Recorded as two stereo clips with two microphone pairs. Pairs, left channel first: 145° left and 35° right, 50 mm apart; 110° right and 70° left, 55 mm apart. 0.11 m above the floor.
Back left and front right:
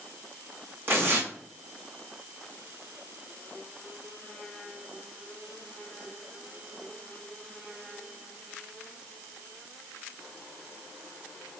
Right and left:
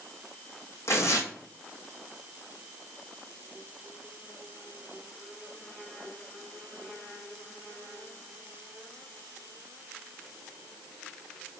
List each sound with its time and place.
0.9 s tearing paper: 75° right, 1.2 m